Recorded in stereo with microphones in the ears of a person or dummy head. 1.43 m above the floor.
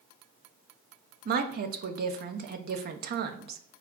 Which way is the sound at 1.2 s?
55° right (ahead or behind).